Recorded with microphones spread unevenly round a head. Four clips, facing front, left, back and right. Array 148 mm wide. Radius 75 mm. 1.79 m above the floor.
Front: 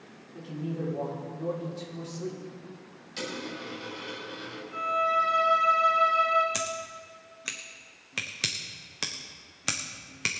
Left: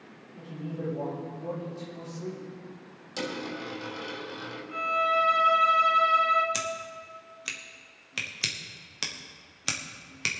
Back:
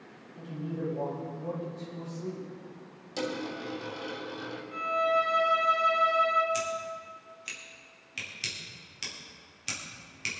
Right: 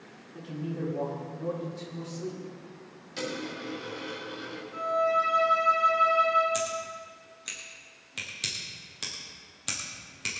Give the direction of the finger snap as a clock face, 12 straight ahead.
No finger snap in this recording.